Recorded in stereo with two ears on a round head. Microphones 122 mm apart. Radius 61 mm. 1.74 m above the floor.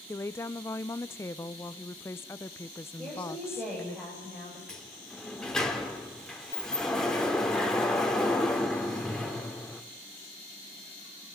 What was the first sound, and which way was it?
A woman speaking, 20° left (ahead or behind).